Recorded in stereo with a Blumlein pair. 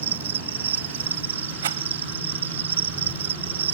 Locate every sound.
0.0 s an insect: 65° right
1.6 s a rattle: 60° right